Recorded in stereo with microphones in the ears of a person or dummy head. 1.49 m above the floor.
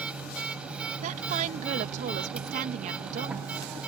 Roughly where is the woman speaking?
Right.